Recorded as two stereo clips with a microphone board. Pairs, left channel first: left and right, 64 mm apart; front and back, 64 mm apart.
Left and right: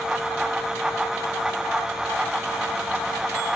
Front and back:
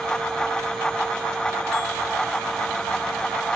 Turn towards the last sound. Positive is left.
No sound to turn to.